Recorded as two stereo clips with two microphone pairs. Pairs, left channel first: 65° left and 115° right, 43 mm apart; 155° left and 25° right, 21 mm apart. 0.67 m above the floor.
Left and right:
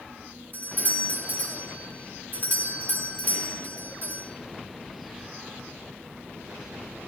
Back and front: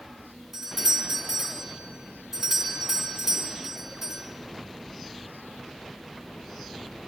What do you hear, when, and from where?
0.5 s a doorbell: 45° left, 2.5 m